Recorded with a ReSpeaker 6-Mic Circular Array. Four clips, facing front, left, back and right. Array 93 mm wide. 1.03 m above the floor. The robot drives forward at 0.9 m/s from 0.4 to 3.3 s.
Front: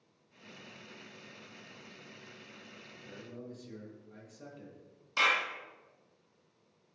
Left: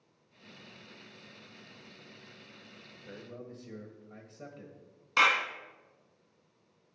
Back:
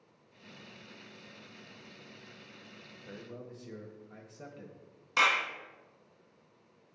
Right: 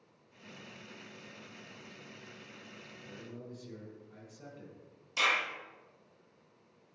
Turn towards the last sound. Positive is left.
turn(degrees=125)